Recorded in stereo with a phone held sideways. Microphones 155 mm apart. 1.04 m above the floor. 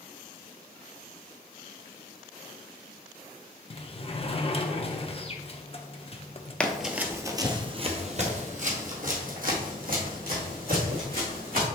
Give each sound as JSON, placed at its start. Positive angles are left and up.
{"t": 3.7, "sound": "a sliding door", "side_deg": 35, "distance_m": 0.7}
{"t": 6.6, "sound": "running footsteps", "side_deg": 5, "distance_m": 1.0}